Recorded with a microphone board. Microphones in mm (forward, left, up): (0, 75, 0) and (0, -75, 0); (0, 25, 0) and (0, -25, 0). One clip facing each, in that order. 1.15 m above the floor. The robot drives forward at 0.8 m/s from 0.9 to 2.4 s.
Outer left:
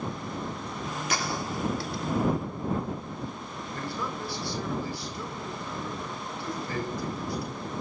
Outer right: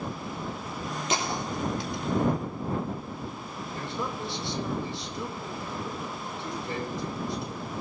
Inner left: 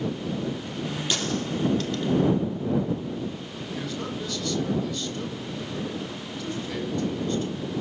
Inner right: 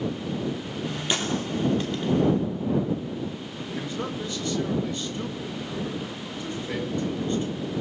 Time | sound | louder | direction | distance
1.1 | a gunshot | outer right 2 dB, inner right 2 dB | 20° right (ahead or behind) | 3 m
3.7 | a man speaking | outer right 1 dB, inner right 1 dB | 20° right (ahead or behind) | 6.5 m